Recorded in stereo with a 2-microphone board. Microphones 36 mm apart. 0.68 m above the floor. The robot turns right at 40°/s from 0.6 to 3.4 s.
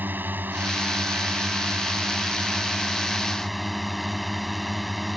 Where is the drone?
110° right; by 5.2 s straight ahead.